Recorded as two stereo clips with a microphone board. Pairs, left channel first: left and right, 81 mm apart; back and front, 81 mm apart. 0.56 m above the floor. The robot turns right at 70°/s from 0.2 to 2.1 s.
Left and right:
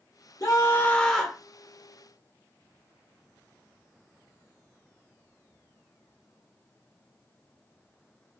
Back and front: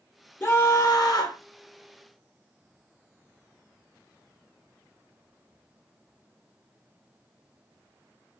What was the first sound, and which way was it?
A scream, 125° left.